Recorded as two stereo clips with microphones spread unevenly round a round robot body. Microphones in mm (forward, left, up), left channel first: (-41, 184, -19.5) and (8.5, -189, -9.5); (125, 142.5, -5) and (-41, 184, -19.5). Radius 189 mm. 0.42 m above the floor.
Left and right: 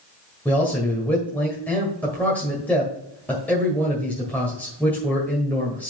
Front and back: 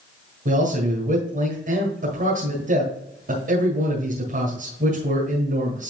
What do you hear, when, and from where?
0.5 s a man speaking: straight behind, 1.7 m